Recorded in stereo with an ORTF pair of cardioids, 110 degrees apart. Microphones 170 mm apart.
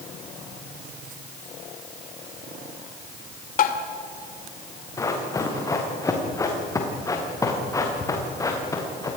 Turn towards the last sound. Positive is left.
turn(degrees=20)